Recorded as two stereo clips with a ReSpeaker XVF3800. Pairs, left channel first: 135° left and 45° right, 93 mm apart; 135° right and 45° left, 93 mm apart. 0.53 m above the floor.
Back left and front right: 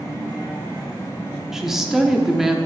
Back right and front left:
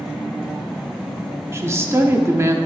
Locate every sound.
1.5 s a woman speaking: 35° left, 0.7 m